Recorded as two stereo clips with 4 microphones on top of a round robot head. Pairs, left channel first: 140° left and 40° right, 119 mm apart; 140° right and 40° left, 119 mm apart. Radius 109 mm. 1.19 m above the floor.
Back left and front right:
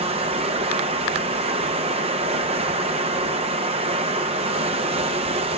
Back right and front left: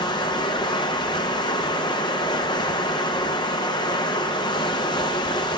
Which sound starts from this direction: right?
Running water, at 0.0 s.